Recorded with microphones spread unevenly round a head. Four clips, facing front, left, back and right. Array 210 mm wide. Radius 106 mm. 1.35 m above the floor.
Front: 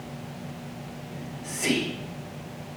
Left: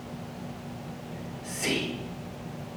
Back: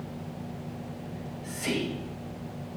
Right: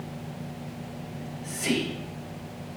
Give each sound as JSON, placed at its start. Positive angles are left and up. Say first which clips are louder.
{"t": 1.1, "sound": "whispering", "louder": "right 1 dB, front 1 dB", "azimuth_deg": 15, "distance_m": 4.0}